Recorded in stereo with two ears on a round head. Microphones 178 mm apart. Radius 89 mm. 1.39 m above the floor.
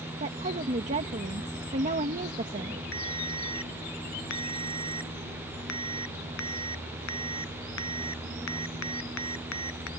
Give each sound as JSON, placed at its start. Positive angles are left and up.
{"t": 0.2, "sound": "a woman speaking", "side_deg": -35}
{"t": 2.9, "sound": "a ringtone", "side_deg": 65}